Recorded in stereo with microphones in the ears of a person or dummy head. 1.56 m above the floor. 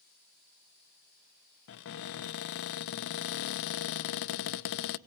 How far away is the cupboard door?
About 0.7 m.